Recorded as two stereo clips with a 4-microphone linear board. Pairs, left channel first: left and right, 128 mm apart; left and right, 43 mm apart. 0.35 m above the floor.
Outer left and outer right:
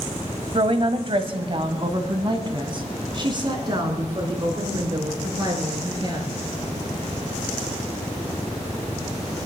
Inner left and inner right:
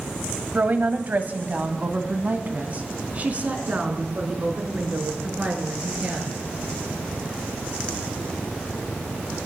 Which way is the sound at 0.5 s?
45° right (ahead or behind).